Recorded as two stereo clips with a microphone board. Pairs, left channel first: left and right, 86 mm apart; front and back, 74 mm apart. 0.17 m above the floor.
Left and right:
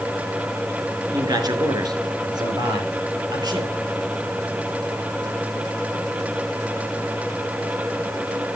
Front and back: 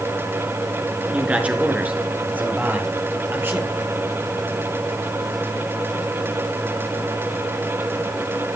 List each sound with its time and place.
1.1 s a man speaking: 110° right, 2.5 m; by 3.8 s 120° right, 4 m